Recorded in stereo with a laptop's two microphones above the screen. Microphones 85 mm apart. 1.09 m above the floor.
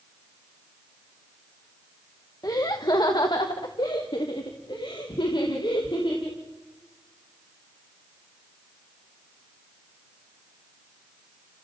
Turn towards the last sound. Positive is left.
turn(degrees=80)